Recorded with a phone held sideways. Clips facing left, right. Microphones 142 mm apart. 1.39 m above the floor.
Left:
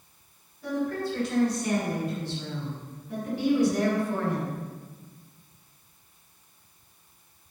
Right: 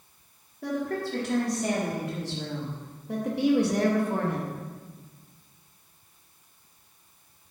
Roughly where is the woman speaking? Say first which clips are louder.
Left 1 dB; right.